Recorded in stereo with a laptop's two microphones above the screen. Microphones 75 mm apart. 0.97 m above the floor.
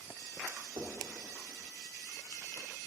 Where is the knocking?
65° right (ahead or behind), 2.5 m.